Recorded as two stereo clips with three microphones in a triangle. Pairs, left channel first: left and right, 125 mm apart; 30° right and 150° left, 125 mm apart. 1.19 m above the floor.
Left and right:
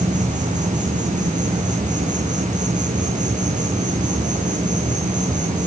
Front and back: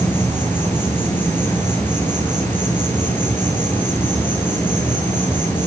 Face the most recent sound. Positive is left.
turn(degrees=-105)